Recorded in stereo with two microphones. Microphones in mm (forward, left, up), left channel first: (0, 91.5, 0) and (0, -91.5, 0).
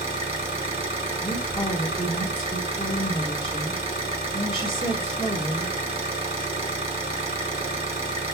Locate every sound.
0.0 s an engine running: 30° right (ahead or behind), 1.4 m
1.2 s a woman speaking: 25° left (ahead or behind), 1.2 m